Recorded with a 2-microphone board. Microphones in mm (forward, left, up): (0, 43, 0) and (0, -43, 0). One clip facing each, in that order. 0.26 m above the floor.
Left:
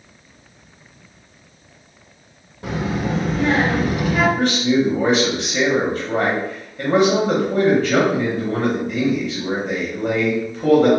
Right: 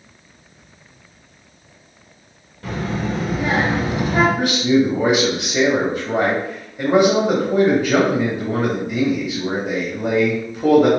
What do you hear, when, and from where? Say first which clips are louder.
2.6 s a child speaking: left 1 dB; 20° left (ahead or behind), 0.8 m; by 4.3 s 35° right (ahead or behind), 0.9 m
4.4 s a man speaking: right 1 dB; 10° right (ahead or behind), 0.9 m